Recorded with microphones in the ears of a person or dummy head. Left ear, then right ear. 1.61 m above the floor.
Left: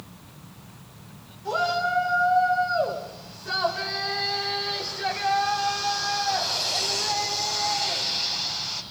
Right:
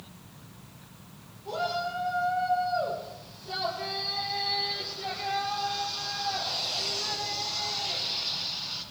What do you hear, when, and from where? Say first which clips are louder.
1.4 s a shout: left 6 dB; 50° left (ahead or behind), 7 m; by 8.8 s 70° left (ahead or behind), 11.5 m